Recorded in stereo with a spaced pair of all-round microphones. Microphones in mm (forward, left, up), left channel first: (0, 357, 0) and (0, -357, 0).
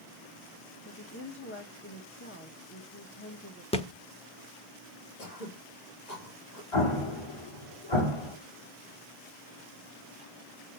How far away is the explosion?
About 3 m.